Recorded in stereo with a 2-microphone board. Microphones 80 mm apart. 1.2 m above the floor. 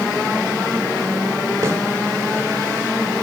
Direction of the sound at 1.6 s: 35° right (ahead or behind).